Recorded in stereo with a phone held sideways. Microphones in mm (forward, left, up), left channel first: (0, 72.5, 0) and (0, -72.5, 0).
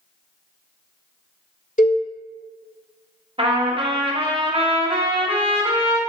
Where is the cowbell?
60° left (ahead or behind), 1.0 m.